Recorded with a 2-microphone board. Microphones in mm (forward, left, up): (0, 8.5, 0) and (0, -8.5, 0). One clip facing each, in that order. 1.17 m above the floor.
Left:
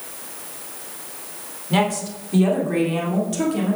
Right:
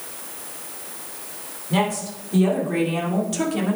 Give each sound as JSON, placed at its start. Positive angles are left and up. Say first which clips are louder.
{"t": 1.7, "sound": "a woman speaking", "louder": "left 2 dB", "side_deg": 15, "distance_m": 3.0}